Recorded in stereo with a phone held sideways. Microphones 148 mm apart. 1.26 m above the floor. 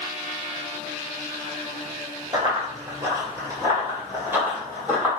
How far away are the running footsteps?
About 1.3 m.